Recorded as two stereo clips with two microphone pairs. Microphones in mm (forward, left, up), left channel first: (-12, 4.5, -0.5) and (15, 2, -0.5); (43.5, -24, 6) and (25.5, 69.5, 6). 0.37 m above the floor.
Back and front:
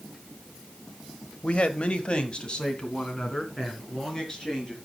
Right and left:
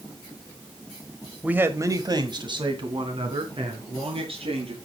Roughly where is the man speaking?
Behind.